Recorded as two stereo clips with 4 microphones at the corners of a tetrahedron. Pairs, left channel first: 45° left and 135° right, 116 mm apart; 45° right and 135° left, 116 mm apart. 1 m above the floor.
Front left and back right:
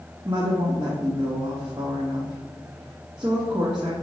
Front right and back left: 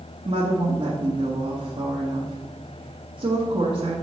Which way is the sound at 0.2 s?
175° left.